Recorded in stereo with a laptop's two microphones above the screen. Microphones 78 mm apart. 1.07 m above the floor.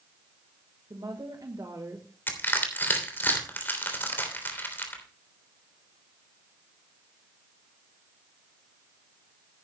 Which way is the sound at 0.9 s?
65° right (ahead or behind).